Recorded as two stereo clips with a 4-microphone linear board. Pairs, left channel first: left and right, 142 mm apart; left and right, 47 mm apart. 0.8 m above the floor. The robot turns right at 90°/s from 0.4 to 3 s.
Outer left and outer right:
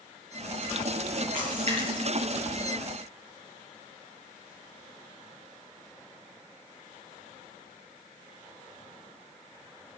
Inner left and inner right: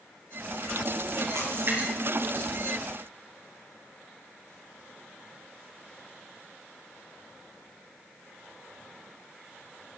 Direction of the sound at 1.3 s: 80° right.